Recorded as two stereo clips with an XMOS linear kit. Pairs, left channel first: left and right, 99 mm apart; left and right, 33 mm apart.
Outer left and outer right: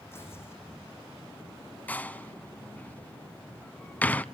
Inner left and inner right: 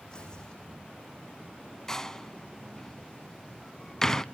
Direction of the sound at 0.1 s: 25° left (ahead or behind).